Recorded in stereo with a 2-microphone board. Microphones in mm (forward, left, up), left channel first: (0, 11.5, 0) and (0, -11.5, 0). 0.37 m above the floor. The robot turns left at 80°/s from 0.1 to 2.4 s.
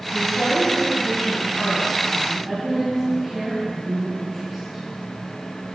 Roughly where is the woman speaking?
Behind.